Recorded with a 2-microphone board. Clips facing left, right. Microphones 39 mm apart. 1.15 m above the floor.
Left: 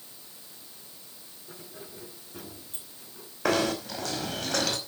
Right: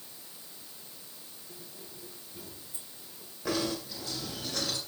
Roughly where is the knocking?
Left.